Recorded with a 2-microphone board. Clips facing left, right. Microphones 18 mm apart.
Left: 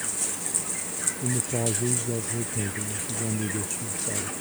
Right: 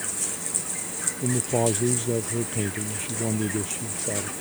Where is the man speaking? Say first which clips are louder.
Right 6 dB; 40° right (ahead or behind).